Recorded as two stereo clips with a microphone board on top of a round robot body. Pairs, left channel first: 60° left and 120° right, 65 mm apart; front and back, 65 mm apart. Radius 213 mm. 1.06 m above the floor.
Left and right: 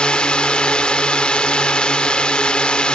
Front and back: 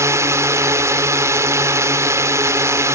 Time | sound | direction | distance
0.0 | a drone | 135° left | ?